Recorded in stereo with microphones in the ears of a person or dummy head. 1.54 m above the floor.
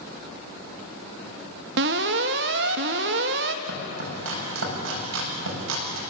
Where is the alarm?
65° right (ahead or behind), 1.3 m.